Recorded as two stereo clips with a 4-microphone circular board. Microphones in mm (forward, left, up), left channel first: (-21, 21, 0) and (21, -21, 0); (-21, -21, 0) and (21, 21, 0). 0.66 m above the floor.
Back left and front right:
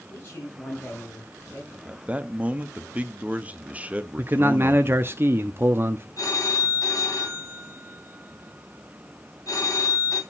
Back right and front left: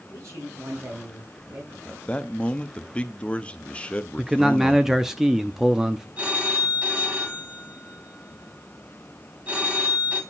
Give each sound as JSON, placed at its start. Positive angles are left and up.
{"t": 0.1, "sound": "a man speaking", "azimuth_deg": 80, "distance_m": 4.5}
{"t": 1.9, "sound": "a man speaking", "azimuth_deg": -85, "distance_m": 0.8}
{"t": 4.2, "sound": "a man speaking", "azimuth_deg": -35, "distance_m": 0.6}
{"t": 6.2, "sound": "a phone ringing", "azimuth_deg": 110, "distance_m": 2.5}